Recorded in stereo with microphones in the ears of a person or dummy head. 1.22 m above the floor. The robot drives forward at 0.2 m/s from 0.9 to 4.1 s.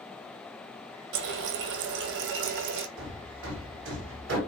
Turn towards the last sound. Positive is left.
turn(degrees=-80)